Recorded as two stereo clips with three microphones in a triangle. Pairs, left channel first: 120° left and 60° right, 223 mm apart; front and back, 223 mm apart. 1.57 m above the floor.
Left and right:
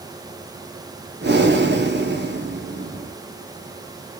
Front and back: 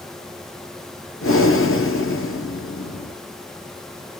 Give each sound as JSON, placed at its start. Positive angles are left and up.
{"t": 1.2, "sound": "breathing", "azimuth_deg": -20, "distance_m": 0.8}